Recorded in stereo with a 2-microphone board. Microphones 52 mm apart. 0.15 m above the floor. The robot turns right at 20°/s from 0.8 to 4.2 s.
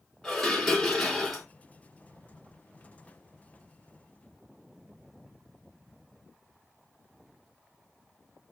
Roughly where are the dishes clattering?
Centre.